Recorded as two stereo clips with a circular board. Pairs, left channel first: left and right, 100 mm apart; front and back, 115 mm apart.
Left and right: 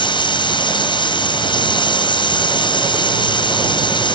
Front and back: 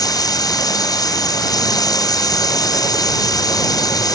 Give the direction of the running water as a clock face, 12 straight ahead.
10 o'clock.